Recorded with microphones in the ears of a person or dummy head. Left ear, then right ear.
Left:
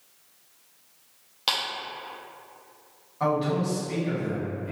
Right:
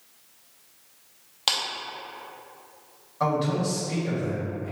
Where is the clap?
20° right (ahead or behind), 0.6 m.